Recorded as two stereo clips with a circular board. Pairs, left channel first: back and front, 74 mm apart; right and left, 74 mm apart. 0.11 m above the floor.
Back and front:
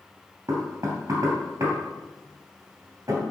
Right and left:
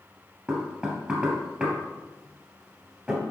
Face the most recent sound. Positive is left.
turn(degrees=20)